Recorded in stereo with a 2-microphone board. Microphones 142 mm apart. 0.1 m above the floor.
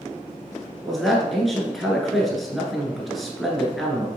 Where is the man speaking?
Centre (ahead or behind), 1.2 m.